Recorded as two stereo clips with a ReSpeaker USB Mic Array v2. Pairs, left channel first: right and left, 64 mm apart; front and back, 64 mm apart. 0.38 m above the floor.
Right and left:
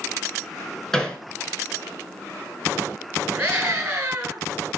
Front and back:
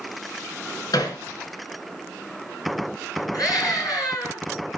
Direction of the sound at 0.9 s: 10° right.